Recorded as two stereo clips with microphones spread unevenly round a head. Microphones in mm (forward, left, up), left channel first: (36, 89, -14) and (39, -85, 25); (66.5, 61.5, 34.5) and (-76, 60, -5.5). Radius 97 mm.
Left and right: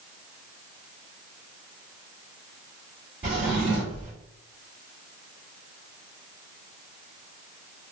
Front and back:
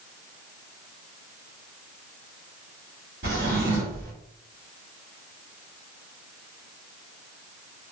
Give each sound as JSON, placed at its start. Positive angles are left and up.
{"t": 3.2, "sound": "a drawer", "azimuth_deg": -155, "distance_m": 1.7}